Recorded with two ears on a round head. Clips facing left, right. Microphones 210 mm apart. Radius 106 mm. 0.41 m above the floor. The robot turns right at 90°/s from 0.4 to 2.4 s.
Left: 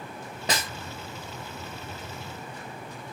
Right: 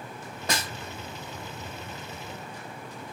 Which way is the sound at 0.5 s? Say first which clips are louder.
Left 1 dB; 15° left (ahead or behind).